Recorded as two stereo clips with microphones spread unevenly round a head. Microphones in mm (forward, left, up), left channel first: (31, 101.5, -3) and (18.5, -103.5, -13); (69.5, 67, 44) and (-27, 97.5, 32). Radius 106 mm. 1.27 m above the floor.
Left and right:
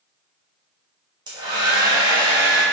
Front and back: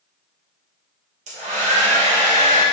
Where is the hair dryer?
165° right, 1.1 m.